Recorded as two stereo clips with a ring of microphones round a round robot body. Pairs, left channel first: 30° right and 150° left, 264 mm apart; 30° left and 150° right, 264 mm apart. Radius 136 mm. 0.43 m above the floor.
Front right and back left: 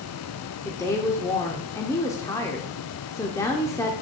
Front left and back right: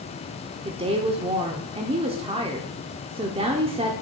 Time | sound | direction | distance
0.7 | a woman speaking | 100° right | 0.8 m